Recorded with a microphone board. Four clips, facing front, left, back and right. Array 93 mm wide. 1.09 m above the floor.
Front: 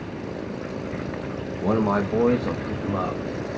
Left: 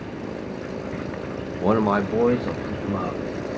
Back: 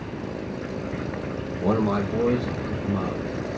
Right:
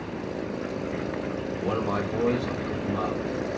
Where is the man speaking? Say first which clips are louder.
Left 8 dB, front 1 dB; 90° left, 0.8 m; by 3.2 s 15° left, 1.7 m.